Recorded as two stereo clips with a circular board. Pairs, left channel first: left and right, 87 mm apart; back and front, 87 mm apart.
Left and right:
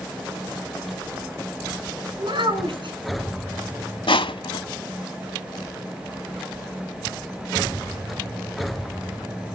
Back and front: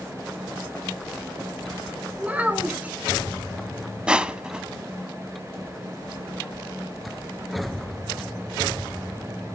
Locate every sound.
2.2 s a child speaking: 75° right, 2.5 m
4.1 s crushing: 80° left, 0.7 m